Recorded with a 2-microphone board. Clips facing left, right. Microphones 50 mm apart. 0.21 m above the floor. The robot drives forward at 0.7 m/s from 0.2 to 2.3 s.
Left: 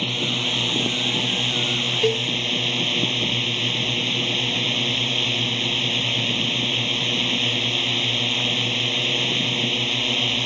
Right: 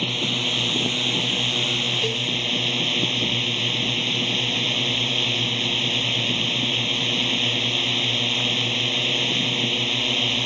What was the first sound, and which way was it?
A drone, 5° left (ahead or behind).